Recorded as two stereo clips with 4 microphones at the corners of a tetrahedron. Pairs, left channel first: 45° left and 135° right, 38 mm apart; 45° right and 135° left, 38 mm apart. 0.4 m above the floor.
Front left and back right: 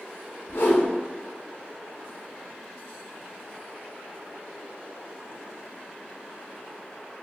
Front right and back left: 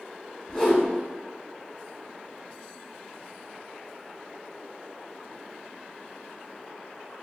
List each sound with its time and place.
0.5 s a whoosh: 30° left, 0.6 m